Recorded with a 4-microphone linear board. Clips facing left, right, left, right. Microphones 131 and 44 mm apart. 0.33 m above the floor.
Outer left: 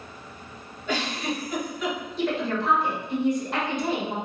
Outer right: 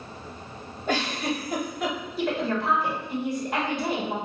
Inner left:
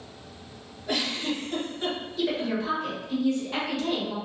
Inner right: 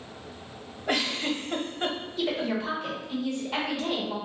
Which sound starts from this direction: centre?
A woman speaking, at 2.2 s.